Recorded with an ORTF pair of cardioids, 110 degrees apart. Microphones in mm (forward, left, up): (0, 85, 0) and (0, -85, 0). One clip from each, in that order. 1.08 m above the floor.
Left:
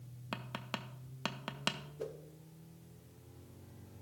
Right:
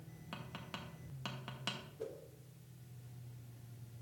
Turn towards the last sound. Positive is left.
turn(degrees=30)